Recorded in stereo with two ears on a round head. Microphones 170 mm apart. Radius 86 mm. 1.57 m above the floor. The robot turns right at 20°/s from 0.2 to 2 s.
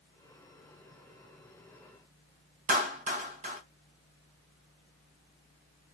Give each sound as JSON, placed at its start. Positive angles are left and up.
{"t": 2.7, "sound": "a clap", "side_deg": -40, "distance_m": 1.0}